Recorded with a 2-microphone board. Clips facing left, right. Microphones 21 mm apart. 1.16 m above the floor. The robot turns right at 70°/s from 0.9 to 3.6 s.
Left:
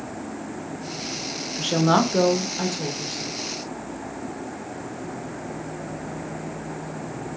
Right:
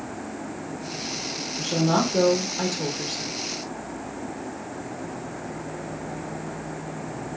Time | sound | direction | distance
1.6 | a woman speaking | 110° left | 1.2 m